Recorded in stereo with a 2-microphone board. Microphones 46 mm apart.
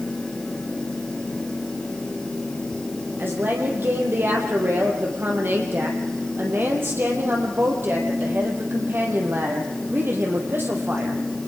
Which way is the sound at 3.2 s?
50° right (ahead or behind).